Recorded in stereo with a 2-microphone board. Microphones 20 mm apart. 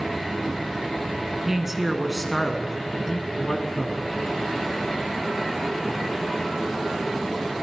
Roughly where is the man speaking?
Right.